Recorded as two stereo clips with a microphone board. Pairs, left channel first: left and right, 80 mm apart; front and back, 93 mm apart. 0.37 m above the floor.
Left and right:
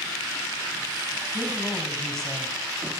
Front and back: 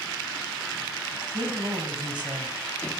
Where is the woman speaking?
Straight behind, 2.5 m; by 3.0 s 165° left, 1.6 m.